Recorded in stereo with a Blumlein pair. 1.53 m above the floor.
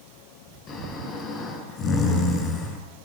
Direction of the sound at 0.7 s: 25° left.